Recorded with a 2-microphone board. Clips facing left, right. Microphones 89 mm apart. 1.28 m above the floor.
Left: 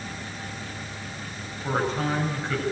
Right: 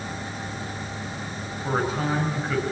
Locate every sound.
1.6 s a man speaking: 5° right (ahead or behind), 7.5 m